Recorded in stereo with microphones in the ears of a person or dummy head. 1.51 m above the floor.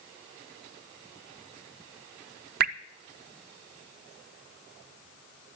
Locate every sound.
2.6 s dripping: 55° right (ahead or behind), 0.6 m